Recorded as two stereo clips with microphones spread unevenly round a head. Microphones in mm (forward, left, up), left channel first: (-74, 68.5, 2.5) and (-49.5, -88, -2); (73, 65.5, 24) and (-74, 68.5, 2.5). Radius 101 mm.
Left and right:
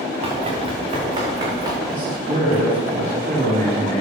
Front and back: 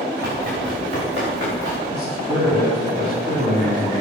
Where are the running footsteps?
135° right, 7 m; by 1.8 s 150° right, 5 m.